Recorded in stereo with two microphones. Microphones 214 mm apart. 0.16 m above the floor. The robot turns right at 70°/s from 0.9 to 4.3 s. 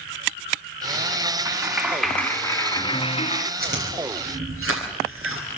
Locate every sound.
1.4 s a clap: 15° right (ahead or behind), 1.4 m; by 3.5 s 25° left (ahead or behind), 1.4 m
3.6 s chewing: 45° right (ahead or behind), 9 m; by 5.6 s 90° right, 9 m